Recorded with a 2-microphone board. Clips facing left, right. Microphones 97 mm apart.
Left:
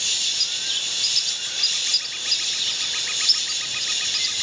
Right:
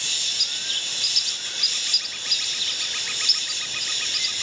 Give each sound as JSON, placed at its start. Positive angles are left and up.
{"t": 0.0, "sound": "an insect", "side_deg": 80, "distance_m": 0.9}